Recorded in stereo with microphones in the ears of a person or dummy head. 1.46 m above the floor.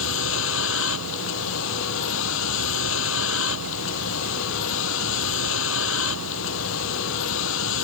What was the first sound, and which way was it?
A vehicle, 75° left (ahead or behind).